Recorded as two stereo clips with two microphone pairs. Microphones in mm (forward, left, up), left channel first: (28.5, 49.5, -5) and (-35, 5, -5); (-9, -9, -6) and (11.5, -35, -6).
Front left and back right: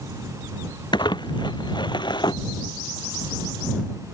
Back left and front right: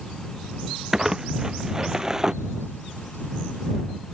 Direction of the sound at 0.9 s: 20° left.